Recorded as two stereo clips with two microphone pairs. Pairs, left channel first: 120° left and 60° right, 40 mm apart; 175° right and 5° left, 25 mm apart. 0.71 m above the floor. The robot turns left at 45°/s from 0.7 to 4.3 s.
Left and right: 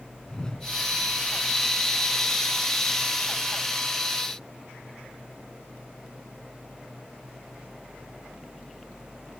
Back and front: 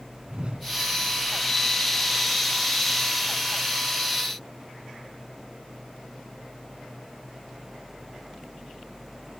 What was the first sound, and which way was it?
A whoosh, 45° left.